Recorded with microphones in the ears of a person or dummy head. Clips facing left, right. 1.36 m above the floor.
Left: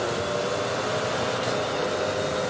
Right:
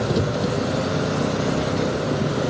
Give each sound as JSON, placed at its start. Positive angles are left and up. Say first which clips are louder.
{"t": 0.0, "sound": "an engine running", "louder": "right 4 dB", "side_deg": -65}